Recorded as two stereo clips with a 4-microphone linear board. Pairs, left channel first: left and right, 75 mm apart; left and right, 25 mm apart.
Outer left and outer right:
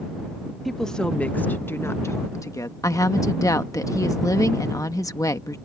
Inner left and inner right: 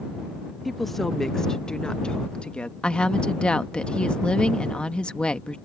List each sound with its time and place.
0.7 s a woman speaking: centre (ahead or behind); by 2.7 s 50° left (ahead or behind)
2.8 s a woman speaking: 45° left (ahead or behind)